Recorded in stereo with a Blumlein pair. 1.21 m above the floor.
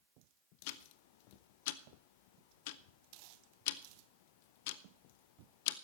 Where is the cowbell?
I don't hear a cowbell.